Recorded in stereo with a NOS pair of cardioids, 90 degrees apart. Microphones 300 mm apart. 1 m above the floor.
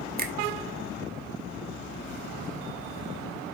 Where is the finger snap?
30° right, 1.6 m.